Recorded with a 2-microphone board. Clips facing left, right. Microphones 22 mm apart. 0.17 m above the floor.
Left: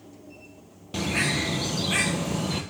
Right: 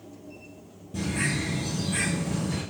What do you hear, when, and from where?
0.9 s a bird: 80° left, 1.3 m